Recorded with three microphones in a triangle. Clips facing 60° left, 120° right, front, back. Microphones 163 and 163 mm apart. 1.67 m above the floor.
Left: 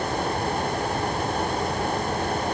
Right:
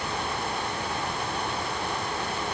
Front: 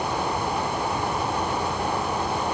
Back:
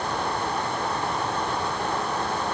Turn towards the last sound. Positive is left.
No sound to turn to.